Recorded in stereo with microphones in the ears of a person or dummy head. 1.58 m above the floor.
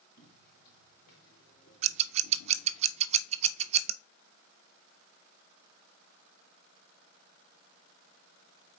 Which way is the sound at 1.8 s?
40° right (ahead or behind).